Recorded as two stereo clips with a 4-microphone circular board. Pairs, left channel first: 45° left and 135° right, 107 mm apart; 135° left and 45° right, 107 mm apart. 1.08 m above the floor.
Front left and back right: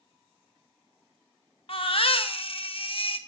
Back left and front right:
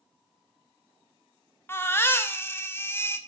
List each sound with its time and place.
1.7 s a baby crying: 70° left, 0.7 m